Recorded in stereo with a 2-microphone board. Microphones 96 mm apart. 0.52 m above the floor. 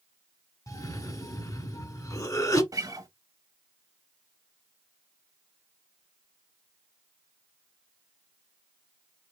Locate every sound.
0.7 s a cough: 35° left (ahead or behind), 1.2 m
2.7 s a guitar: 40° right (ahead or behind), 0.7 m